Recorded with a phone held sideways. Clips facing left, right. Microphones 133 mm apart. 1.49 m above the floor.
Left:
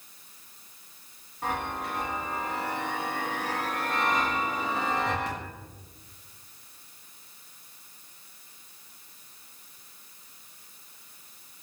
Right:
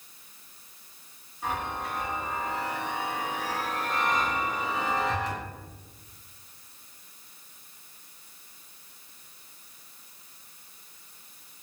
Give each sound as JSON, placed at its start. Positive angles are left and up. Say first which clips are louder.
{"t": 1.4, "sound": "a chime", "louder": "left 1 dB", "side_deg": 60, "distance_m": 1.3}